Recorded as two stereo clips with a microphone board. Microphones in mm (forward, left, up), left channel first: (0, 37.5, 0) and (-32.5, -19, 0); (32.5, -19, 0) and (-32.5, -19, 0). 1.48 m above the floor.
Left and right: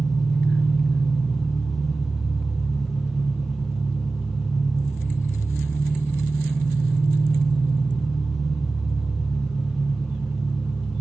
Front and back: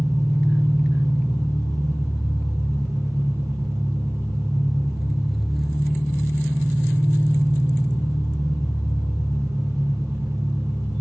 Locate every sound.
0.0 s an engine running: 155° left, 2.5 m